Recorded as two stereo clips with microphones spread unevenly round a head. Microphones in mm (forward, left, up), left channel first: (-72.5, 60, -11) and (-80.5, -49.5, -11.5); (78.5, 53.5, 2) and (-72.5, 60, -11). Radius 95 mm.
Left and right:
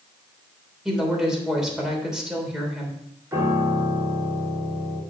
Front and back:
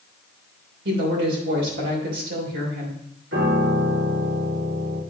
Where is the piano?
160° right, 3.5 m.